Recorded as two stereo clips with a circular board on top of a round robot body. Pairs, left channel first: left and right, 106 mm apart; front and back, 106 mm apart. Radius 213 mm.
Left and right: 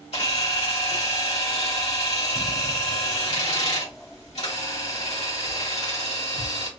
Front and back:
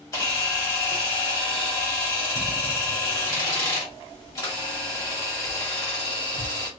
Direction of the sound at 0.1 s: 60° left.